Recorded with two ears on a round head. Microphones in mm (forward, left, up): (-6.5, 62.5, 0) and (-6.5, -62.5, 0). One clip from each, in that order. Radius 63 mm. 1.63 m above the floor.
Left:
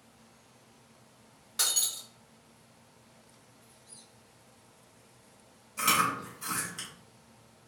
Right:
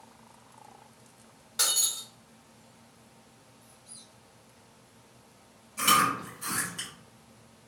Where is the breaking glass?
5° left (ahead or behind), 0.9 m.